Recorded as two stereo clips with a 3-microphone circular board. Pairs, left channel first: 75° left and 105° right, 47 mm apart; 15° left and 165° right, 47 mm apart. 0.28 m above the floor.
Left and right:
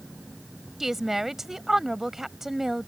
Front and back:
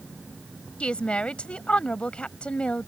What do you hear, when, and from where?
0.8 s a woman speaking: 30° right